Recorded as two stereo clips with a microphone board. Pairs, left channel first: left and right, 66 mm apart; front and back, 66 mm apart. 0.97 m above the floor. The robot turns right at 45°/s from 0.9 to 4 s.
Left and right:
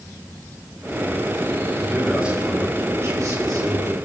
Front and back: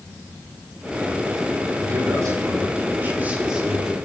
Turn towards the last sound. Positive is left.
turn(degrees=-85)